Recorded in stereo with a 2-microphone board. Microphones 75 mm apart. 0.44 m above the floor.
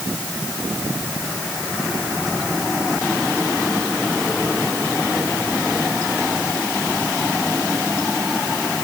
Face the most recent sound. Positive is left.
No sound to turn to.